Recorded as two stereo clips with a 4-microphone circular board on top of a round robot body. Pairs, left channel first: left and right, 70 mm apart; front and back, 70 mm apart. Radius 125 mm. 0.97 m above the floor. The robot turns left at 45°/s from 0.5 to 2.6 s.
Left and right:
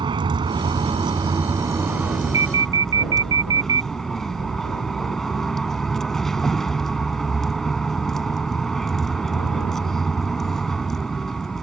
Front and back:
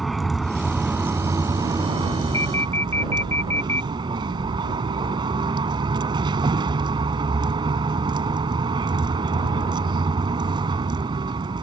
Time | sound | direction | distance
0.0 | a vehicle | 90° right | ?
2.3 | an alarm | 50° right | ?